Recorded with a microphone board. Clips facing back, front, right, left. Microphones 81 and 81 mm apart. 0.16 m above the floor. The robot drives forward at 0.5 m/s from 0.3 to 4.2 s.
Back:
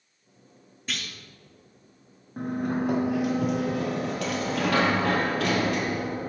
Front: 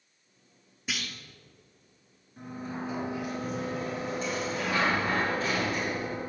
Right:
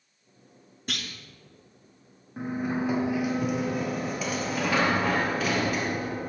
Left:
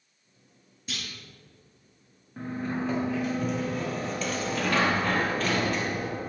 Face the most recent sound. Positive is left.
turn(degrees=-170)